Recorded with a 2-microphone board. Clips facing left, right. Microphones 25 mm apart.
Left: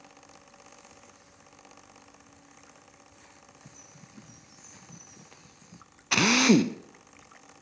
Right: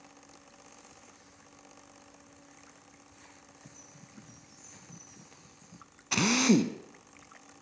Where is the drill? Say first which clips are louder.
Left 4 dB; 30° left (ahead or behind), 0.7 m.